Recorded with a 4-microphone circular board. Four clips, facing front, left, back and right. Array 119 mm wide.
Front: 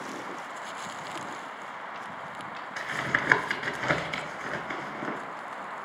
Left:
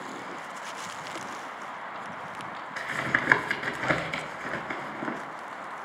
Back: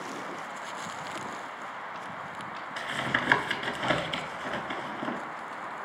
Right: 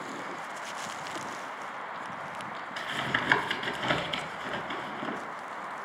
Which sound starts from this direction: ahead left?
Tapping, at 2.8 s.